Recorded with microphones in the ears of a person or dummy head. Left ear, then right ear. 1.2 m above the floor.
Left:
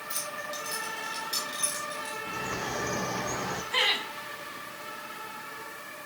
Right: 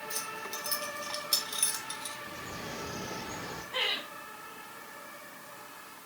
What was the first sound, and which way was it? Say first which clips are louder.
Keys jangling: left 4 dB; centre (ahead or behind).